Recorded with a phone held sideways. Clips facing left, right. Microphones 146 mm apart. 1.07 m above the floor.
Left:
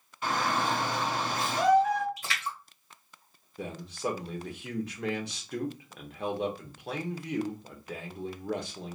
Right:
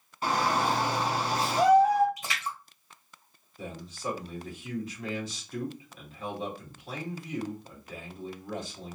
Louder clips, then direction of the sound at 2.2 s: Right 1 dB; 20° right (ahead or behind).